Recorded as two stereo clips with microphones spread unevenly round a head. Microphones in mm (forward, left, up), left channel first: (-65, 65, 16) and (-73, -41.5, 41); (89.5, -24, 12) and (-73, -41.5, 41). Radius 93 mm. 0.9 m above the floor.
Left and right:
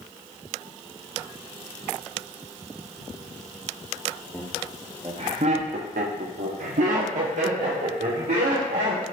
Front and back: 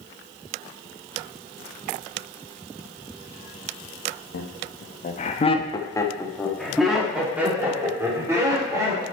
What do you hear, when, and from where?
4.3 s laughter: 5° right, 1.1 m; by 9.0 s 105° right, 2.5 m